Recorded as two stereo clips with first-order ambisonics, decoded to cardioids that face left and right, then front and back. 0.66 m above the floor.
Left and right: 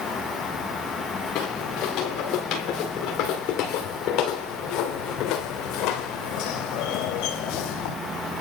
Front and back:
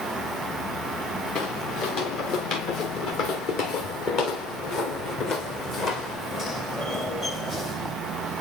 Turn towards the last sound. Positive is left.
turn(degrees=80)